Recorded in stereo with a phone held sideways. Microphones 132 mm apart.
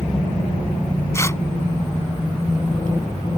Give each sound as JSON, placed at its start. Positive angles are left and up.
{"t": 1.1, "sound": "tearing paper", "side_deg": 20}